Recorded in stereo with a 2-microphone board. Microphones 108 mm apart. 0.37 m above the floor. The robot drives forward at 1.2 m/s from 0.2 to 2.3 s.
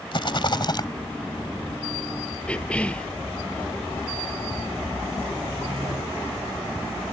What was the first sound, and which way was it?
A rattle, 50° left (ahead or behind).